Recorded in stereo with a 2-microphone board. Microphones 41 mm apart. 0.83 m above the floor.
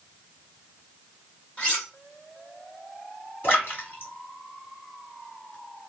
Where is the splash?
55° left (ahead or behind), 1.6 m.